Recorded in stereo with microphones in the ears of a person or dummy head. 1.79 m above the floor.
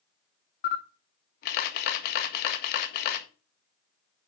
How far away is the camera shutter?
About 1.5 m.